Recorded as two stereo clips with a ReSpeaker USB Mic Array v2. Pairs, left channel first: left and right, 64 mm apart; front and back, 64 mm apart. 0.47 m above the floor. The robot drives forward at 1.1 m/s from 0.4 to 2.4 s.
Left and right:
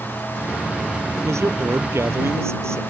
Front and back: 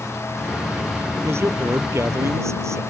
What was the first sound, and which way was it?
A man speaking, 135° right.